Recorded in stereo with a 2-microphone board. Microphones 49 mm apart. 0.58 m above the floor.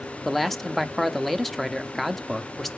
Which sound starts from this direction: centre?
A man speaking, at 0.2 s.